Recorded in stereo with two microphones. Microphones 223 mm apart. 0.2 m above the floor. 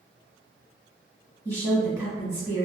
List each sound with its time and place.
1.4 s a woman speaking: 15° right (ahead or behind), 1.5 m